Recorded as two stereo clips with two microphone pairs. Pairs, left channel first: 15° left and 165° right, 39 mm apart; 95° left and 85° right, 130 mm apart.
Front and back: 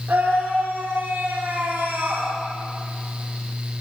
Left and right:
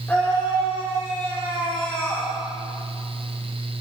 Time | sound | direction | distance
0.1 | a scream | 170° left | 6 m